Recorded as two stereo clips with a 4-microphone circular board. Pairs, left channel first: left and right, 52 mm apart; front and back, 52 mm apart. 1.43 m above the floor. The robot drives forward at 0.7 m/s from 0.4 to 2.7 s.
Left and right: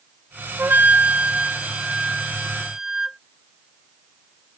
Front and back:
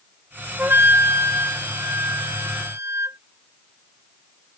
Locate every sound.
0.6 s a flute: 130° right; by 3.2 s 170° right